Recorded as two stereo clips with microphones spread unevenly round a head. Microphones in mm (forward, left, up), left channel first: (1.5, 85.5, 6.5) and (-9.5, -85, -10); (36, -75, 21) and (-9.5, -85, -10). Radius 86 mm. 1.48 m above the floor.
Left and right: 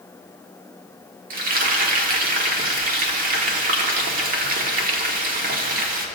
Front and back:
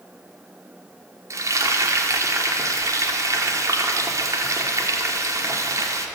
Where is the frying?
130° right, 1.4 m.